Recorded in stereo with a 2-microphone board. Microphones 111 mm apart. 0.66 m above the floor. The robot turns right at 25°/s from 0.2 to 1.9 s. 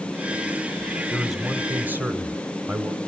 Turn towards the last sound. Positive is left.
turn(degrees=-15)  # may be behind; listen again after turning